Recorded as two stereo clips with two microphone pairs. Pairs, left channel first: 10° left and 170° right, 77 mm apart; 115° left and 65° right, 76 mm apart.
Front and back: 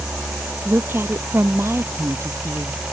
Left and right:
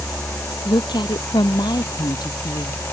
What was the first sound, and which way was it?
A woman speaking, 130° left.